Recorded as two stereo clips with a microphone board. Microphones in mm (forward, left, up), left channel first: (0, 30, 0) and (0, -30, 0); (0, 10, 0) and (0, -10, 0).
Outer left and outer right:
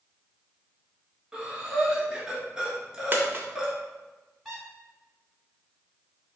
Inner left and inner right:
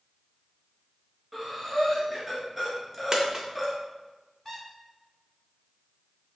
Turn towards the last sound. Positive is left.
turn(degrees=0)  # may be behind; listen again after turning